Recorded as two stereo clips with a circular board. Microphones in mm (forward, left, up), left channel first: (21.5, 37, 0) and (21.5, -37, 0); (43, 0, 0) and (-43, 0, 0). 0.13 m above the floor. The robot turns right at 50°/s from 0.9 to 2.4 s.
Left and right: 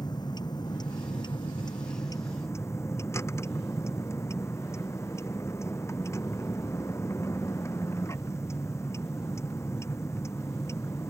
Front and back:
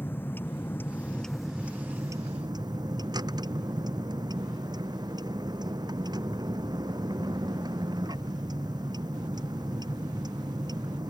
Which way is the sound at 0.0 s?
65° left.